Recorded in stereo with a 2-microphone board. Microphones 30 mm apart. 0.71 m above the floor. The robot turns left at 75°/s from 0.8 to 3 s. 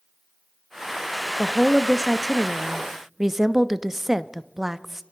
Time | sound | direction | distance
1.4 | a woman speaking | 30° left (ahead or behind) | 0.6 m